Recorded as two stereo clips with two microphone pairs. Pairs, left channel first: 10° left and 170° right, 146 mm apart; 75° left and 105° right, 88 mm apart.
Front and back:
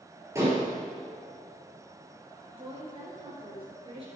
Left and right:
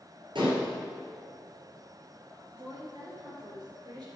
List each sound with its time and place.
0.3 s dishes clattering: 100° right, 2.5 m
2.6 s a woman speaking: 125° right, 3 m